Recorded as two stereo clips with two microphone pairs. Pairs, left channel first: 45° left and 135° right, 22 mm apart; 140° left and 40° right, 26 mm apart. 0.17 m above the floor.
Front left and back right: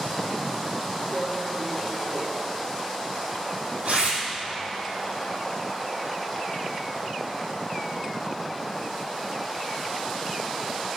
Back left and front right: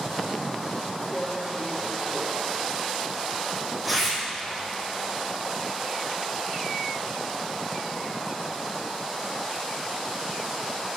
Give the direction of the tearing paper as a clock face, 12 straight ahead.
4 o'clock.